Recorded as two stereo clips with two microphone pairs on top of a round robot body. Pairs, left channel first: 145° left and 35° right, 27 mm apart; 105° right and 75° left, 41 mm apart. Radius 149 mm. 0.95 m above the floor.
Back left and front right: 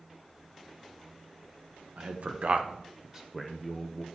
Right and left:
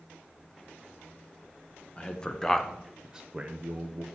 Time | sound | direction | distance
2.0 | a man speaking | 35° right | 1.3 m